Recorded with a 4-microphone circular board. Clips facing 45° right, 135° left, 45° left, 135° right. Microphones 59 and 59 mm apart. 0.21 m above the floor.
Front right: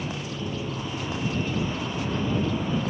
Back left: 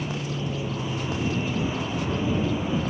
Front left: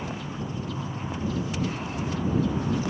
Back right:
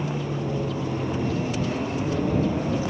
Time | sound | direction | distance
0.0 | an aircraft | 145° right | ?